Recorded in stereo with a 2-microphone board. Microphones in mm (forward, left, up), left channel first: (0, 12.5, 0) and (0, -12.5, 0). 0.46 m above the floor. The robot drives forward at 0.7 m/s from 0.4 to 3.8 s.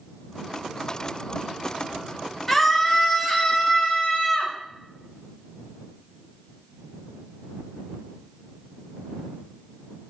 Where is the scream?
10° left (ahead or behind), 2.5 m.